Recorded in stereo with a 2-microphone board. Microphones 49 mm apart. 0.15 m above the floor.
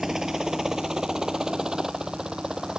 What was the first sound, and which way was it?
A helicopter, 10° right (ahead or behind).